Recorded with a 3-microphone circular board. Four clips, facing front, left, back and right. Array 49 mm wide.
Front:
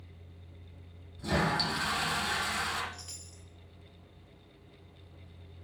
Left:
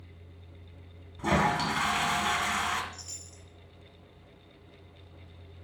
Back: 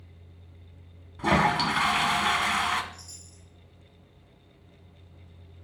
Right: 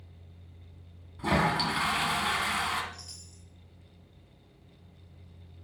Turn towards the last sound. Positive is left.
turn(degrees=20)